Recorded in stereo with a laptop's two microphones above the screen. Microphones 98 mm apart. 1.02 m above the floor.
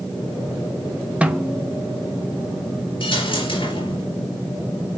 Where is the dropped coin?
60° left (ahead or behind), 4.5 m.